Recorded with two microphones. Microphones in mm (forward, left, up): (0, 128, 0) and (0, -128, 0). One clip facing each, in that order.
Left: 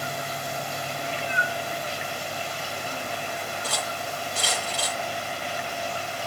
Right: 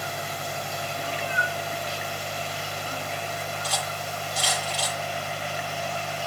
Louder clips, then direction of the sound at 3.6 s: Left 1 dB; 60° left (ahead or behind).